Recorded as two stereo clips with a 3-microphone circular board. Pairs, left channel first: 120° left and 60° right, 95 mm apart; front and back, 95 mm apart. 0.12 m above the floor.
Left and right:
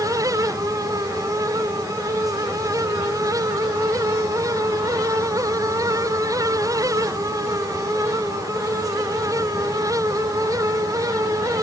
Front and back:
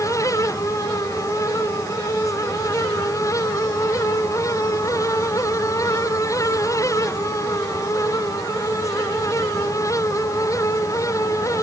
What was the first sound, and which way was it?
Only background noise.